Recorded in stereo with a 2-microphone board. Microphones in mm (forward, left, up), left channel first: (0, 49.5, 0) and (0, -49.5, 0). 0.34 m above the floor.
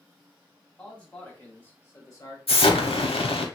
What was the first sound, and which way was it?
A man speaking, 10° left (ahead or behind).